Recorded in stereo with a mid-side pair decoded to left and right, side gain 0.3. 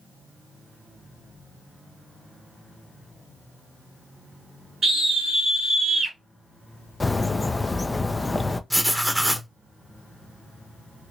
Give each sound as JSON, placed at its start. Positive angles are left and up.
{"t": 4.8, "sound": "a scream", "azimuth_deg": -70, "distance_m": 2.5}
{"t": 7.0, "sound": "a bird", "azimuth_deg": 30, "distance_m": 0.5}
{"t": 8.7, "sound": "writing", "azimuth_deg": -5, "distance_m": 0.9}